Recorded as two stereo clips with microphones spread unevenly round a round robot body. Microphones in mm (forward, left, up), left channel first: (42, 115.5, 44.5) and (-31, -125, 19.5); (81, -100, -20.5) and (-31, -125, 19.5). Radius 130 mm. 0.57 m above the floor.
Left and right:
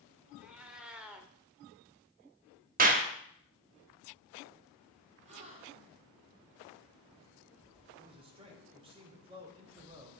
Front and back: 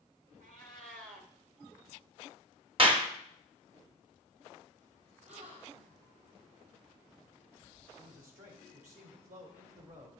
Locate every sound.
0.4 s a cat meowing: 165° left, 0.7 m
2.8 s a clap: 125° right, 1.0 m
5.2 s a gasp: 175° right, 1.8 m
8.0 s a man speaking: 175° right, 2 m